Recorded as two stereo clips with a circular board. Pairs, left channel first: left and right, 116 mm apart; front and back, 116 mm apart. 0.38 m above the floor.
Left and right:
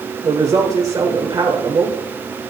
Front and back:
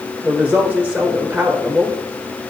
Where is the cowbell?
I don't hear a cowbell.